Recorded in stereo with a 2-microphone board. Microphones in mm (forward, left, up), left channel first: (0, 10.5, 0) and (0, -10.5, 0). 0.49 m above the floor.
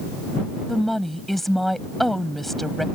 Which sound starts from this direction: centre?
A woman speaking, at 0.7 s.